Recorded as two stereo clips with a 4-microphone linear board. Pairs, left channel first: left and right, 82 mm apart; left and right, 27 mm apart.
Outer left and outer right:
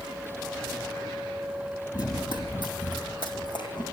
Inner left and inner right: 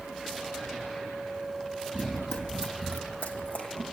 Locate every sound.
1.9 s running footsteps: 55° left (ahead or behind), 2.5 m; by 3.8 s 60° left (ahead or behind), 4.5 m